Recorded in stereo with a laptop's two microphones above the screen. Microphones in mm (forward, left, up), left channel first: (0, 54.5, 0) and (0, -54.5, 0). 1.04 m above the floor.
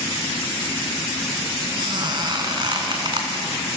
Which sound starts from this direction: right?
A squeak, at 1.8 s.